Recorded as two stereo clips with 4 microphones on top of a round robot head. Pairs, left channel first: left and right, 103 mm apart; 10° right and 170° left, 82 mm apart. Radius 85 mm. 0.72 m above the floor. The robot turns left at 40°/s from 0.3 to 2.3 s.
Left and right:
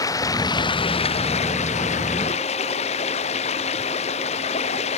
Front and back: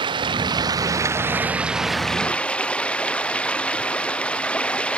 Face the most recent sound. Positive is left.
turn(degrees=65)